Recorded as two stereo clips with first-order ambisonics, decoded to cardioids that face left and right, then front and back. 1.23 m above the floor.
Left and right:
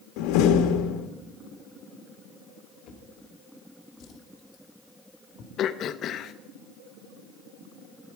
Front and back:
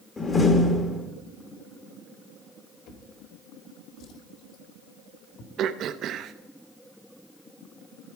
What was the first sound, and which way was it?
A door slam, 75° left.